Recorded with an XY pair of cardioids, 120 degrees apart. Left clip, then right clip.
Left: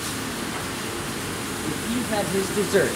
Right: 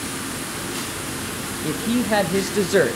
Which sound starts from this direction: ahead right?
A woman speaking, at 1.6 s.